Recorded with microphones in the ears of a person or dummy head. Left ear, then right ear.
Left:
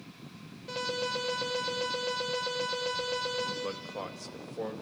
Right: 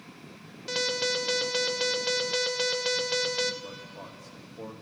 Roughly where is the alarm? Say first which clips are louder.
Right 5 dB; right.